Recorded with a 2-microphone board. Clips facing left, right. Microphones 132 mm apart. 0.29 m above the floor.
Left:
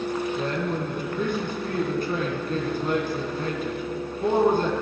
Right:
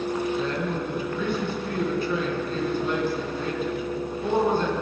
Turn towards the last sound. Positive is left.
turn(degrees=50)  # may be behind; listen again after turning